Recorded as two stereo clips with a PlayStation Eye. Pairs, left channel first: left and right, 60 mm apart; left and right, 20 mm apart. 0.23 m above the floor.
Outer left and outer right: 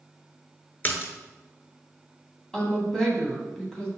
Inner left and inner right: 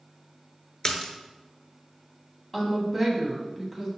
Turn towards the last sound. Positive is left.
turn(degrees=10)  # may be behind; listen again after turning